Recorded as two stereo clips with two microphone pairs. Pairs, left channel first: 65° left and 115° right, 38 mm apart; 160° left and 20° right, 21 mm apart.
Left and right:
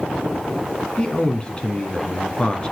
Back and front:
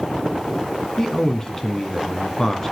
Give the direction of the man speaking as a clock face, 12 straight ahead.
8 o'clock.